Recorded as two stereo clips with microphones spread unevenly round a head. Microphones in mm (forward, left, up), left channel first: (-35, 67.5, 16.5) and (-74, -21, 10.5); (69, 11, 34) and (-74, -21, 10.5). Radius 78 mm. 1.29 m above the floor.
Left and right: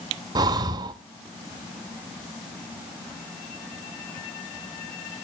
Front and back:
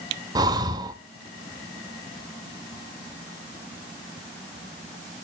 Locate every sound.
0.3 s breathing: 105° right, 0.7 m